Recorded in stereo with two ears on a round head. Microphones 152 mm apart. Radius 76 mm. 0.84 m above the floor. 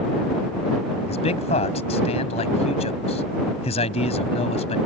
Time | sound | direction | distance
1.1 | a man speaking | 40° left (ahead or behind) | ?